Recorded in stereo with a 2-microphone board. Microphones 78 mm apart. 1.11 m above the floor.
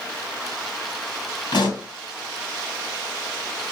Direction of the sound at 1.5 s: 65° left (ahead or behind).